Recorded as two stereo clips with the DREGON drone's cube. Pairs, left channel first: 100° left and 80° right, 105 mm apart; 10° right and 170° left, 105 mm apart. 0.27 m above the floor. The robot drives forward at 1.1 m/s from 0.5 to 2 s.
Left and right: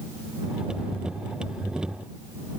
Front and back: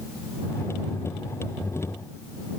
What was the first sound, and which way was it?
Only background noise.